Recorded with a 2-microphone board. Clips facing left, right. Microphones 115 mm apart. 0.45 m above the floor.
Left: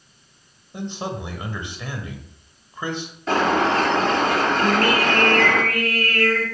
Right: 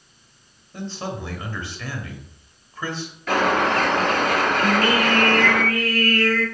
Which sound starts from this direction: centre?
A man speaking, at 0.7 s.